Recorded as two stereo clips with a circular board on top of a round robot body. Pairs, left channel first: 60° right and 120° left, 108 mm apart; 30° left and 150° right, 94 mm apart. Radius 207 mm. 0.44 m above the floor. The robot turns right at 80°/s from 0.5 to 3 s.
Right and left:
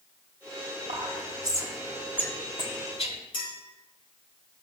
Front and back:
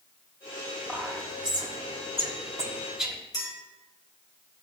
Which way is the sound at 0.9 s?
125° left.